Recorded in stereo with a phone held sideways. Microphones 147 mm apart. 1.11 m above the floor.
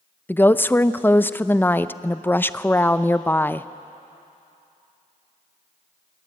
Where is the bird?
No bird in this recording.